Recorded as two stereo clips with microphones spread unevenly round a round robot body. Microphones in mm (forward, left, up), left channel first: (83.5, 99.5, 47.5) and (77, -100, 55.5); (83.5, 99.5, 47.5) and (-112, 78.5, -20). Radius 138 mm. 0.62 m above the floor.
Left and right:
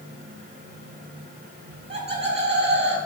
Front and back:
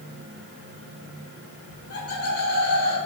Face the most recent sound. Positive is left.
turn(degrees=-60)